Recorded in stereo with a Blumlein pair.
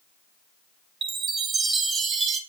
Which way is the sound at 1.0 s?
20° right.